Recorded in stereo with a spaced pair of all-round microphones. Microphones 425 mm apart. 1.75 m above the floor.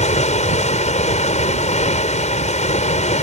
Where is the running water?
15° left (ahead or behind).